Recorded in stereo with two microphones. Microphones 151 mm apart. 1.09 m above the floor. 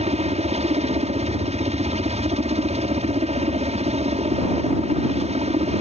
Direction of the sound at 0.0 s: 45° right (ahead or behind).